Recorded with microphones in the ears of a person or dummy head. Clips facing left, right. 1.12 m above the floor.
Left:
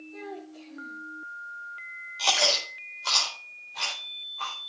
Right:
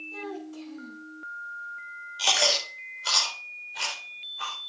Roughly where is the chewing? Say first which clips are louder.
Even; centre.